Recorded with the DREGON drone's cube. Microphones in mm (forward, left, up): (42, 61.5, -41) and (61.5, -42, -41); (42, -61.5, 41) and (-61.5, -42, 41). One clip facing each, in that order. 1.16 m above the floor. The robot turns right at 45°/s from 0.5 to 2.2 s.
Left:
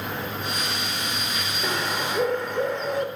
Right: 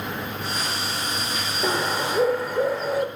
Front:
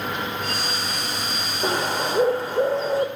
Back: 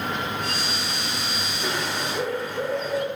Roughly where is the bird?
Ahead.